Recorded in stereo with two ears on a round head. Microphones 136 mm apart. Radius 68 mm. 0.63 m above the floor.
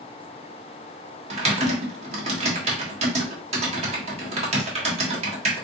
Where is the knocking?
I don't hear knocking.